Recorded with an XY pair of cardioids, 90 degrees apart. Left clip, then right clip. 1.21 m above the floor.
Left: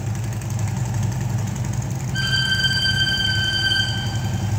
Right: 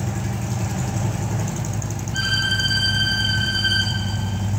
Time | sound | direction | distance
2.1 | a violin | 30° right | 2.5 m